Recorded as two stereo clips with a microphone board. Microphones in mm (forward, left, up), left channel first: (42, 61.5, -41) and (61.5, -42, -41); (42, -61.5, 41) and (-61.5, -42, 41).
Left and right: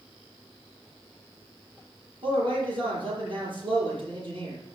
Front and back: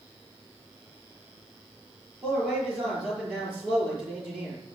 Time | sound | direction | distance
2.2 | a man speaking | 110° right | 7.5 m